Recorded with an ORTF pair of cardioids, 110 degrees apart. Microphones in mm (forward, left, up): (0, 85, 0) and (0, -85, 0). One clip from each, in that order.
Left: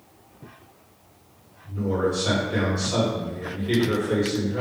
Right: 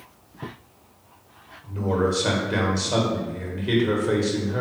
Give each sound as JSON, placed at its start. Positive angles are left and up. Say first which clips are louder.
{"t": 1.6, "sound": "a man speaking", "louder": "right 1 dB", "azimuth_deg": -65, "distance_m": 1.2}